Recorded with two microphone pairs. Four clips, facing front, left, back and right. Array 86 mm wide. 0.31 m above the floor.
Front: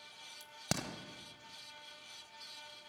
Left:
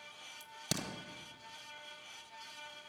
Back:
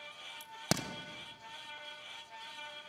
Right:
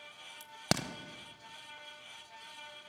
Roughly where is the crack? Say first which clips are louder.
Right 7 dB, back 4 dB; behind right.